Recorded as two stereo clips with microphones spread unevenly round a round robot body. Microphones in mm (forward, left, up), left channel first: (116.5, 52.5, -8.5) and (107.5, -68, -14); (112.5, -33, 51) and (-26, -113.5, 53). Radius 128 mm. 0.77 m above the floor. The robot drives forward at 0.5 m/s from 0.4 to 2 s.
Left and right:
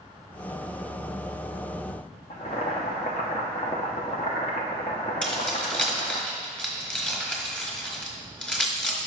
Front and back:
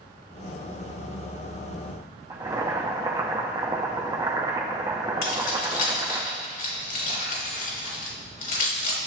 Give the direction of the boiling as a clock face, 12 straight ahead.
7 o'clock.